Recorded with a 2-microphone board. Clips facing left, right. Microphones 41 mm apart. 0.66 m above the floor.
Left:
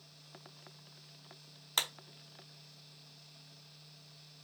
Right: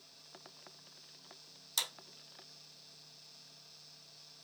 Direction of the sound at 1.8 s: 45° left (ahead or behind).